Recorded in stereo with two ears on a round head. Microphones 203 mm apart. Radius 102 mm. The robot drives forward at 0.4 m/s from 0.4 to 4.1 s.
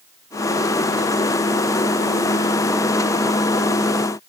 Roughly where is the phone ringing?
No phone ringing in this recording.